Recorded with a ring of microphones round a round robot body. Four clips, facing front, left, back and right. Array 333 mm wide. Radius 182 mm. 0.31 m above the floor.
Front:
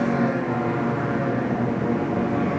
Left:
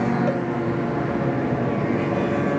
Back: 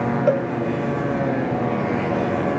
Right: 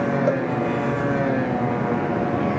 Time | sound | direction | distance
0.3 | a cowbell | 165° right | ?